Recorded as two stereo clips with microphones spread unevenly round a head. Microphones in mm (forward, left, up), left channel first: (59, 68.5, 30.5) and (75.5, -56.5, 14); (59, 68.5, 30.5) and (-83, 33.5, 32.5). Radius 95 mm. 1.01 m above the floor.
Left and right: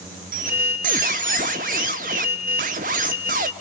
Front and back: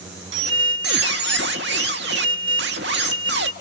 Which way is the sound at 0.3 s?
135° right.